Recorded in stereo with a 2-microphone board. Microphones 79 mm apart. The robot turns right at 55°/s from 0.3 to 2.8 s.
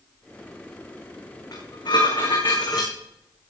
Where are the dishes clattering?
55° left, 5 m; by 2.9 s 125° left, 5 m.